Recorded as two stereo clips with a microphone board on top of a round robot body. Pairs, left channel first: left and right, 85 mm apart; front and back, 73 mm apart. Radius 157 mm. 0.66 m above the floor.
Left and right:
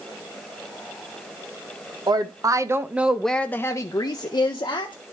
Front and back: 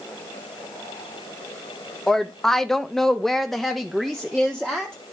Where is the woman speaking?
85° right, 1.2 m; by 5.0 s 90° left, 1.6 m.